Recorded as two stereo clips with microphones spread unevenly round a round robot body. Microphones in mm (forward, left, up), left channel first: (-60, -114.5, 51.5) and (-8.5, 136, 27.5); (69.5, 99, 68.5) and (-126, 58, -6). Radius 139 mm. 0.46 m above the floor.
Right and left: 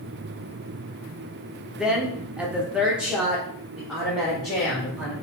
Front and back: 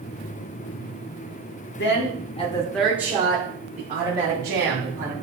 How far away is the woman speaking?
About 0.9 m.